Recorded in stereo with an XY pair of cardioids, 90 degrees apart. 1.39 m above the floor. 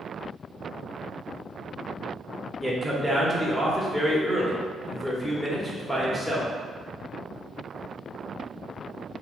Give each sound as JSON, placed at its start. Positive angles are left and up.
{"t": 2.6, "sound": "a man speaking", "azimuth_deg": 10, "distance_m": 1.1}